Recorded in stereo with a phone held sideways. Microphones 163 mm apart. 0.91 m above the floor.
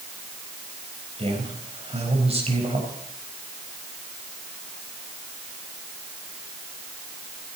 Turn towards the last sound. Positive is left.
turn(degrees=-40)  # may be behind; listen again after turning